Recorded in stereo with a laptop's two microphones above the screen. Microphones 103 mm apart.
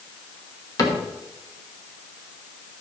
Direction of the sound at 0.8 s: 35° left (ahead or behind).